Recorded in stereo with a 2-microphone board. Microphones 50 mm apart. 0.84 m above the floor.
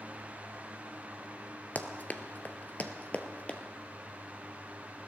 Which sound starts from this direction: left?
Running footsteps, at 1.8 s.